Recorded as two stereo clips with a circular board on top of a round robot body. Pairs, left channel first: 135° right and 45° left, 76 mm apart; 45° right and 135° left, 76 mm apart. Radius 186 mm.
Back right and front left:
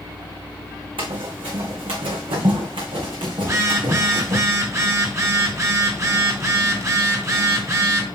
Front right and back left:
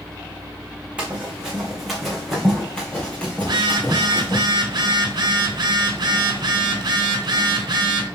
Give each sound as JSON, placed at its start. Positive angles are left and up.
{"t": 1.0, "sound": "running footsteps", "azimuth_deg": 60, "distance_m": 2.5}
{"t": 3.4, "sound": "a phone buzzing", "azimuth_deg": 100, "distance_m": 1.1}